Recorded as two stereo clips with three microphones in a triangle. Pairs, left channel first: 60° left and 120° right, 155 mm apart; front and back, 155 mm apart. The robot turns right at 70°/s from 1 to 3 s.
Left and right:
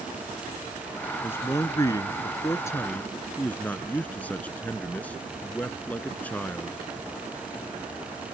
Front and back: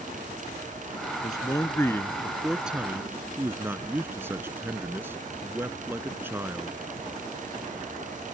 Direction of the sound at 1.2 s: Straight ahead.